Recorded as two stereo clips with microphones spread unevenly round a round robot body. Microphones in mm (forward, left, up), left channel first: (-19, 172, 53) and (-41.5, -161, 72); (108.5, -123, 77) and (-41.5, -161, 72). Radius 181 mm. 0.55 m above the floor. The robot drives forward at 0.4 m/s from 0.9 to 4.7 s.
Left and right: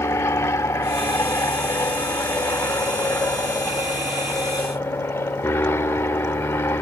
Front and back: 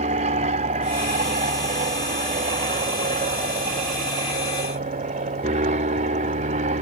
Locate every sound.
0.0 s an aircraft: 165° left